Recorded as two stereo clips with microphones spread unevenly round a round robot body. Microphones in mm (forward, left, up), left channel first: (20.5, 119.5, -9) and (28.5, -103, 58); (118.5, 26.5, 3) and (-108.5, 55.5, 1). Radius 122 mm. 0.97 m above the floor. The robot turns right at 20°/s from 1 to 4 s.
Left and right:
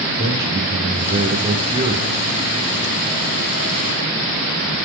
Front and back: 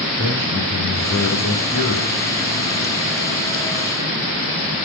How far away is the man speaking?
About 2.5 m.